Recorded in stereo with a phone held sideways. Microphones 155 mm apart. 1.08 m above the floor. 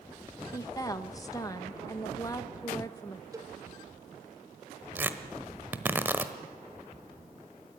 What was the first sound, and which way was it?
A woman speaking, 20° left (ahead or behind).